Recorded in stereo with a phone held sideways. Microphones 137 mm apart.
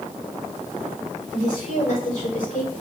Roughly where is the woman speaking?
Left.